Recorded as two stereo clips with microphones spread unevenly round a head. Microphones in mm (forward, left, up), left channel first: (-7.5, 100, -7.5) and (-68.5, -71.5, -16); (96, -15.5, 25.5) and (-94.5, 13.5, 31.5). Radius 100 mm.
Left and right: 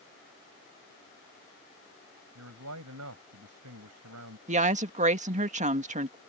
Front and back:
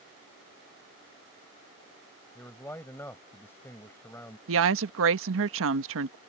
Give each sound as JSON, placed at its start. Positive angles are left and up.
{"t": 2.4, "sound": "a man speaking", "azimuth_deg": -90}
{"t": 4.5, "sound": "a woman speaking", "azimuth_deg": -165}